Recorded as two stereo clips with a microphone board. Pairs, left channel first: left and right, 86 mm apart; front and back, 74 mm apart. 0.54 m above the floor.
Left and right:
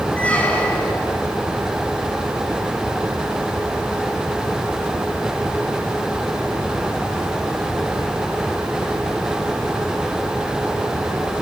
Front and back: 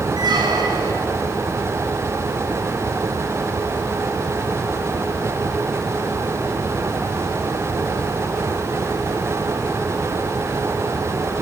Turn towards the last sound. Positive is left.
turn(degrees=165)